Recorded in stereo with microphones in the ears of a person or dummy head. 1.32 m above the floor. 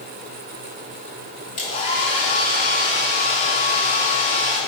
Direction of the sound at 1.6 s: 30° left (ahead or behind).